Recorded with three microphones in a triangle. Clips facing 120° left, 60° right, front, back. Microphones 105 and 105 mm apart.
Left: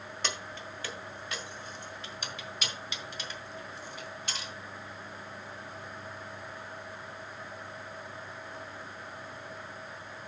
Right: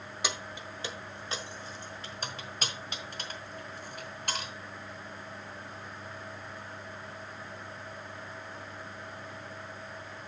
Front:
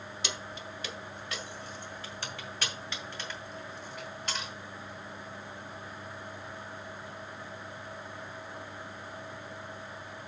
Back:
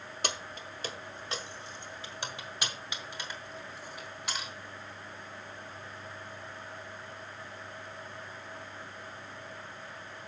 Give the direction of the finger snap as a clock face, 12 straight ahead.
No finger snap in this recording.